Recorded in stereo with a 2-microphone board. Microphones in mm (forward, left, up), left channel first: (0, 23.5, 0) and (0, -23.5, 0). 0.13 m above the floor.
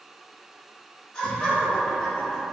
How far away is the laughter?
About 1.4 m.